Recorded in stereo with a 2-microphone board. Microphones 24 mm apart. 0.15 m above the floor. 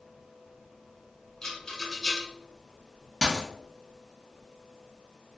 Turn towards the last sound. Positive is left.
turn(degrees=10)  # may be behind; listen again after turning